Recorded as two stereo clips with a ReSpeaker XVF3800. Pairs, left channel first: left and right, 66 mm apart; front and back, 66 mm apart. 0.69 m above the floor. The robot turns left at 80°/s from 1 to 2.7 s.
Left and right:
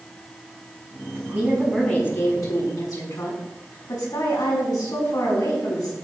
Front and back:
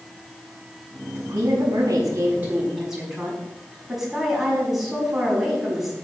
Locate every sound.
1.1 s a woman speaking: 140° right, 6 m; by 5.9 s 95° left, 6 m